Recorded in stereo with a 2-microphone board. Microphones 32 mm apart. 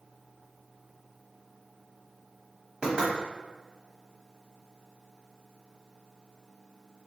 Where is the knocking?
30° right (ahead or behind), 1.3 m.